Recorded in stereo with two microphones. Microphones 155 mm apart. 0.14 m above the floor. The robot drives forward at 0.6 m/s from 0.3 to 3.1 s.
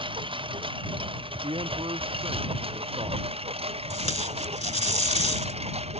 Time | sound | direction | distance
0.0 | a lawn mower | 35° right (ahead or behind) | ?
1.4 | a man speaking | 35° right (ahead or behind) | ?
3.9 | tape being pulled | 40° left (ahead or behind) | ?